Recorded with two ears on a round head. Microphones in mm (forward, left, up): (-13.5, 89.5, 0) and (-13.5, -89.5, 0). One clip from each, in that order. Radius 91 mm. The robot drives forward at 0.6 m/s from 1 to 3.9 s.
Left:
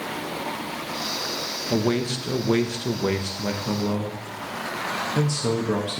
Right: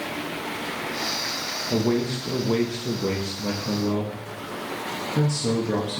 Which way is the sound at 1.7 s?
45° left (ahead or behind).